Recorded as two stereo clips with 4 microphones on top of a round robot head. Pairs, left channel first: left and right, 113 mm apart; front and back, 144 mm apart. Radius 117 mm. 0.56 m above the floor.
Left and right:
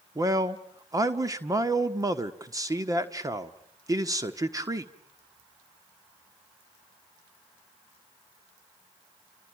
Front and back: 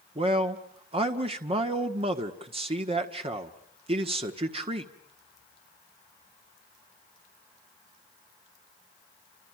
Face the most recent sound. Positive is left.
turn(degrees=-145)